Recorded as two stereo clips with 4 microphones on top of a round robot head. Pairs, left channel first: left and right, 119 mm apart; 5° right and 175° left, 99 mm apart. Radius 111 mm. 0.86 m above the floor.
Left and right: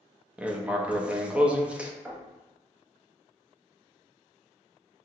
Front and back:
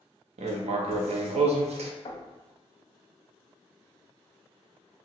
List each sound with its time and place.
0.4 s writing: 170° right, 0.6 m
2.0 s knocking: 20° right, 0.8 m